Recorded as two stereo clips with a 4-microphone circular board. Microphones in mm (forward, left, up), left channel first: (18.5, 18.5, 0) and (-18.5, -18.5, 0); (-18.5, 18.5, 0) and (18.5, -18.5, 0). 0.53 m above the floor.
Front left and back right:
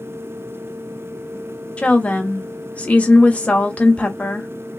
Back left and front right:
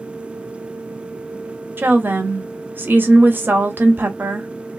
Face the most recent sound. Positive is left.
turn(degrees=-10)